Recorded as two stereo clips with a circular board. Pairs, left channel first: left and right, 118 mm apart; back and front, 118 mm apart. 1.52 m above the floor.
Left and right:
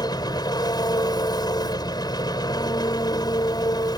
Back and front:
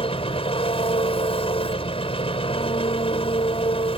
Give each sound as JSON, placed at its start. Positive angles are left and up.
{"t": 0.0, "sound": "an engine running", "azimuth_deg": 145}